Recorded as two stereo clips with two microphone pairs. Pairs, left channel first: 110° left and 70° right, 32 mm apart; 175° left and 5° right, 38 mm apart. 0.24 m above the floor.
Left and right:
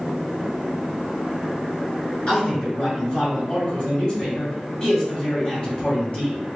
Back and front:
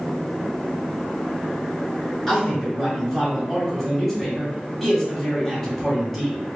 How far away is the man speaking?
About 1.4 m.